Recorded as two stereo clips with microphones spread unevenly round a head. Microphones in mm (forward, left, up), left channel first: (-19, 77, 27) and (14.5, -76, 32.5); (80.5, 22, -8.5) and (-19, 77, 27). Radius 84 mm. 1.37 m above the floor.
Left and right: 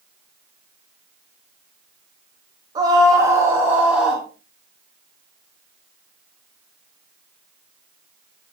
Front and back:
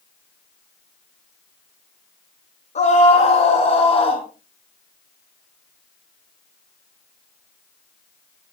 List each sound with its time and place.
2.8 s a scream: 10° right, 4.5 m; by 4.2 s 10° left, 4.5 m